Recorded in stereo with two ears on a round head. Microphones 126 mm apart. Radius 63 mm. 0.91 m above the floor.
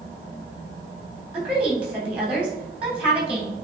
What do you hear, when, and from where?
1.3 s a woman speaking: 10° right (ahead or behind), 3 m